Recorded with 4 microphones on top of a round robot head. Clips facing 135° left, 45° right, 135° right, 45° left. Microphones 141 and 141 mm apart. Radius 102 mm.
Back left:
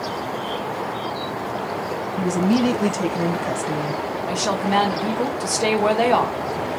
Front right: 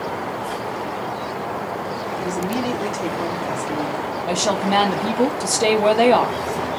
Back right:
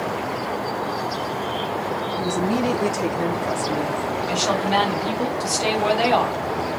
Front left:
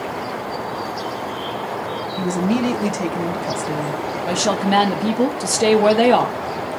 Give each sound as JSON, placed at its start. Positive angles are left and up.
{"t": 2.2, "sound": "a woman speaking", "azimuth_deg": 110, "distance_m": 1.0}
{"t": 4.3, "sound": "a woman speaking", "azimuth_deg": 20, "distance_m": 1.0}